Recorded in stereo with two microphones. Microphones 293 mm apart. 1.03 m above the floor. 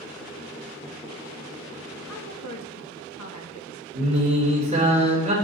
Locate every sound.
2.1 s a woman speaking: 70° left (ahead or behind), 1.3 m
3.9 s singing: 25° right (ahead or behind), 2.5 m